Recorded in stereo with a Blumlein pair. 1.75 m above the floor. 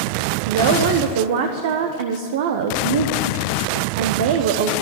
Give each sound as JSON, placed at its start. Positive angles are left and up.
{"t": 0.5, "sound": "a woman speaking", "azimuth_deg": -55, "distance_m": 1.2}